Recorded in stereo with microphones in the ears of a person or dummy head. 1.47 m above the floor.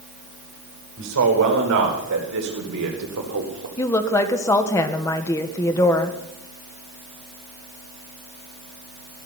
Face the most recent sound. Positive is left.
turn(degrees=15)  # may be behind; listen again after turning